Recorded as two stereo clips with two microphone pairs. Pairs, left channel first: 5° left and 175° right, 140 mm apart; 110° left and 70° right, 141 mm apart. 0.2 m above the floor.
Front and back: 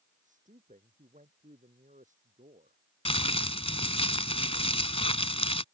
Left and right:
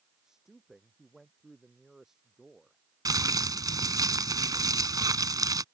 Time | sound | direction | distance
0.2 | a man speaking | 155° right | ?
3.0 | crumpling | 15° right | ?